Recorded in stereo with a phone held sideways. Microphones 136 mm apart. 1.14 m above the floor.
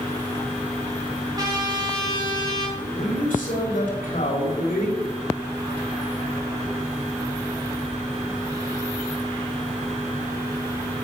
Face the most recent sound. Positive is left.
turn(degrees=80)